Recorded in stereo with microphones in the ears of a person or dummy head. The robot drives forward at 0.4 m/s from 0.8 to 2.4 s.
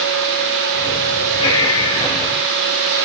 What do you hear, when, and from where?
1.4 s breathing: 25° left (ahead or behind), 4.5 m